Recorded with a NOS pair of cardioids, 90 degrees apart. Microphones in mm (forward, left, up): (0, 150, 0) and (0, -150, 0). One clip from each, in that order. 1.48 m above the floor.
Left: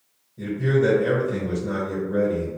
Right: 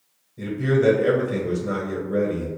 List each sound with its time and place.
0.4 s a man speaking: 15° right, 0.9 m